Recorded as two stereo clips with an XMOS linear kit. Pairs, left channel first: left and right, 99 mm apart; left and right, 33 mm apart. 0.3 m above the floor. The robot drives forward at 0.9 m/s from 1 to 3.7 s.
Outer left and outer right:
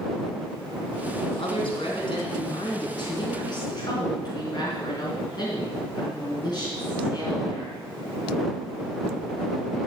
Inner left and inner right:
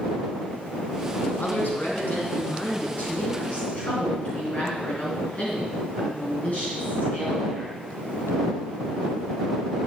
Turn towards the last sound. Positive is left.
turn(degrees=45)  # may be behind; listen again after turning